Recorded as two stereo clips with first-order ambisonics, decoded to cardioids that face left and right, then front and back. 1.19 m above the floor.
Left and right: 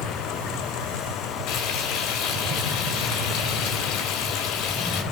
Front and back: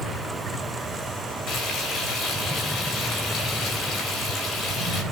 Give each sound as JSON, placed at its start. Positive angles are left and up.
{"t": 1.5, "sound": "frying", "azimuth_deg": 50, "distance_m": 4.5}